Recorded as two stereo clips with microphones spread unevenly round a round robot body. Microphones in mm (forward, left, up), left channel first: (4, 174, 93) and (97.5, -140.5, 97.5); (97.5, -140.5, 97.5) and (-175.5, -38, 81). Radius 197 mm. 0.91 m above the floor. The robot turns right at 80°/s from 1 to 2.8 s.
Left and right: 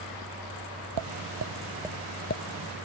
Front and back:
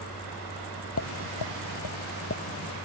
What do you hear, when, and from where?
1.0 s tapping: 60° right; by 2.4 s 55° left